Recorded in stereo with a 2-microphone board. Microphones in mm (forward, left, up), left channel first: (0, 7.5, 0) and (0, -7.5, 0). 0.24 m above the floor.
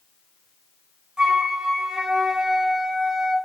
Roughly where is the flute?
Right.